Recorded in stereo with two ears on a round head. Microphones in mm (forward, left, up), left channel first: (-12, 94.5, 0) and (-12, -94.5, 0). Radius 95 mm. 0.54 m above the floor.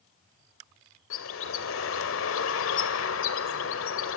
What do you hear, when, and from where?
1.1 s a bird: 65° left (ahead or behind), 1.8 m